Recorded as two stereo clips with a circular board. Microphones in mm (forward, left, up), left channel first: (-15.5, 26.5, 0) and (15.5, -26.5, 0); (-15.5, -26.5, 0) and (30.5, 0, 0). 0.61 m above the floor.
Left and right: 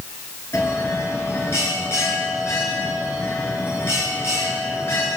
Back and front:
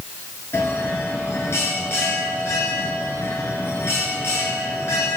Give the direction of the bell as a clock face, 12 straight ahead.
6 o'clock.